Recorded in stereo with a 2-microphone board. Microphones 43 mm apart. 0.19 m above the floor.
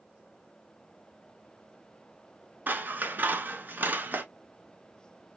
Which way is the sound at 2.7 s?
45° right (ahead or behind).